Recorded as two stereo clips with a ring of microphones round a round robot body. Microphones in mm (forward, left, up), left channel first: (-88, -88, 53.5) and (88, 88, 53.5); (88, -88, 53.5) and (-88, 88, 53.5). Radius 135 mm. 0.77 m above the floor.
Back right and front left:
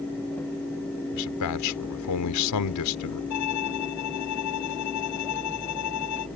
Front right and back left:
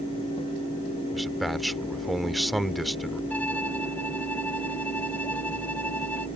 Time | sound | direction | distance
1.1 | a man speaking | 135° right | ?
3.3 | a violin | 130° right | ?